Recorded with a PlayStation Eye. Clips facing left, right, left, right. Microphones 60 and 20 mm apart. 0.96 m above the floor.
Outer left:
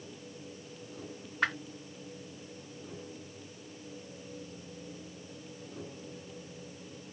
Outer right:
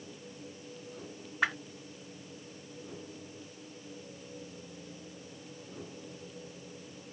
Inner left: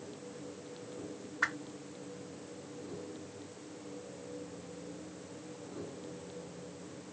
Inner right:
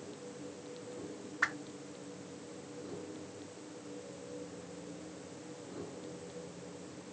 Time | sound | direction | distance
1.4 | a whoosh | 5° right (ahead or behind) | 0.6 m